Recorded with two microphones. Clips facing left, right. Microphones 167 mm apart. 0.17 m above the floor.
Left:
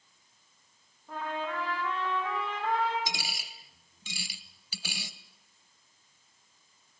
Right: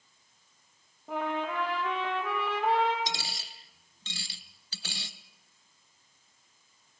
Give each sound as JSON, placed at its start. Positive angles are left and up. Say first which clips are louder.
{"t": 1.1, "sound": "a trumpet", "louder": "right 3 dB", "side_deg": -75, "distance_m": 5.5}
{"t": 3.1, "sound": "a dropped coin", "louder": "right 1 dB", "side_deg": 10, "distance_m": 1.1}